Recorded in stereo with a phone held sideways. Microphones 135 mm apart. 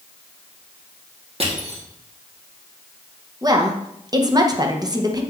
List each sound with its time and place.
1.4 s crushing: 45° right (ahead or behind), 1.4 m
3.4 s a woman speaking: 30° right (ahead or behind), 0.8 m